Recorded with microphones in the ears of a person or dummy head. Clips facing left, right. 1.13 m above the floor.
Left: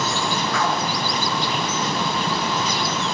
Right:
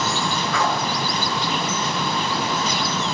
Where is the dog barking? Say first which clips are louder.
Right 1 dB; 75° right (ahead or behind), 4.5 m.